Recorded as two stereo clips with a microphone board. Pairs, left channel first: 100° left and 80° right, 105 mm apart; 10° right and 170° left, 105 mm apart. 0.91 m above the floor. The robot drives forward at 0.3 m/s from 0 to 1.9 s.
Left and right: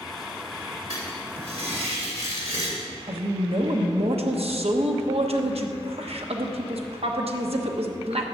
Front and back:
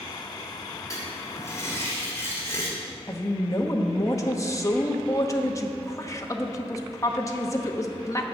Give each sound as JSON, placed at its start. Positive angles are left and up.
{"t": 0.9, "sound": "writing", "azimuth_deg": -70, "distance_m": 2.5}
{"t": 3.1, "sound": "a woman speaking", "azimuth_deg": -70, "distance_m": 1.1}